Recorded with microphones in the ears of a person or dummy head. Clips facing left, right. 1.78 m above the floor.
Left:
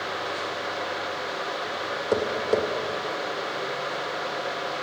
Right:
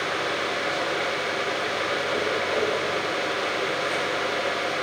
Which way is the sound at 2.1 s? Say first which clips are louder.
Left 5 dB; 60° left (ahead or behind).